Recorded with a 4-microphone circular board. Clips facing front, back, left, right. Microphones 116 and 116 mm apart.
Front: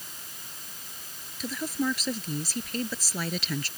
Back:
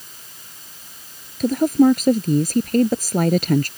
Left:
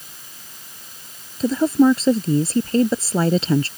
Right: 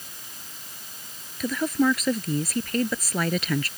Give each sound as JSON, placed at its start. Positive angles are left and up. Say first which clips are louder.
{"t": 1.4, "sound": "a woman speaking", "louder": "back 15 dB, left 8 dB", "azimuth_deg": 150}